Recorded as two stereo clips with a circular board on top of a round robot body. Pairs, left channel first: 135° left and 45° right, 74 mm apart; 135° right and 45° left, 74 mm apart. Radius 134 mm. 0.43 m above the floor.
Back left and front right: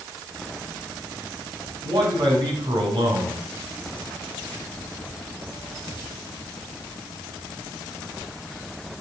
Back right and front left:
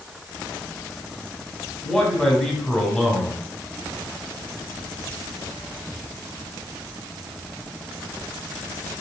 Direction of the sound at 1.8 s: 55° right.